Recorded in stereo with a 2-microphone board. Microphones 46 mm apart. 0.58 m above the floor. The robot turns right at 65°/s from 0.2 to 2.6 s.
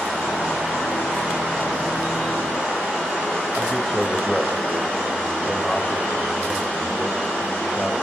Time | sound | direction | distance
3.6 | a man speaking | 10° left (ahead or behind) | 3.5 m